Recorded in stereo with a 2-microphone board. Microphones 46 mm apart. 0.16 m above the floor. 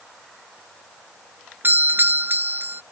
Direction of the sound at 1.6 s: 50° right (ahead or behind).